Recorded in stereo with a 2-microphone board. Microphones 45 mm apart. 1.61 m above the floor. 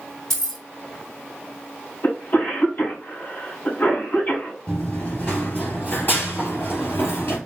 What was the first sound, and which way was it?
Keys jangling, 10° left (ahead or behind).